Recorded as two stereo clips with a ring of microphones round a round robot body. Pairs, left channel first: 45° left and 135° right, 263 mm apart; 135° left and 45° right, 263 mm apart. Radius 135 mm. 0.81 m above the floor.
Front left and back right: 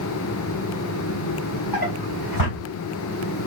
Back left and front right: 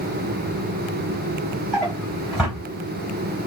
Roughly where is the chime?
I don't hear a chime.